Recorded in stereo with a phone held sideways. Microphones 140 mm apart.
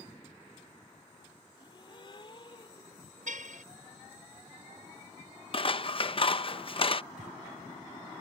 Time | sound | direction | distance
1.6 | a gasp | 40° left (ahead or behind) | ?
3.3 | a car horn | 70° right (ahead or behind) | ?
5.5 | scissors | 40° left (ahead or behind) | ?
7.2 | breathing | 75° right (ahead or behind) | ?